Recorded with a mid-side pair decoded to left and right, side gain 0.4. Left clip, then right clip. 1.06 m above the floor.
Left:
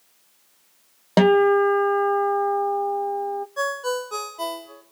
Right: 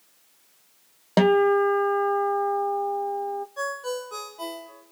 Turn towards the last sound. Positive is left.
turn(degrees=45)